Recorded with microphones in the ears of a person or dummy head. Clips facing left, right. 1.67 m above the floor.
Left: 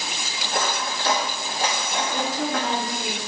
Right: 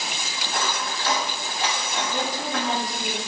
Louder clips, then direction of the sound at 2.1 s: Left 3 dB; 30° left (ahead or behind).